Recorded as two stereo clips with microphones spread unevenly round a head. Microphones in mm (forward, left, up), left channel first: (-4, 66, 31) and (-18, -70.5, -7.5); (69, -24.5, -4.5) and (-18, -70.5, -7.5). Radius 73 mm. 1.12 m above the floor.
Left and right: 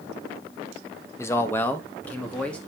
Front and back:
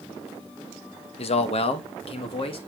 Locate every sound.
1.2 s a man speaking: 10° left, 0.9 m; by 2.6 s straight ahead, 1.6 m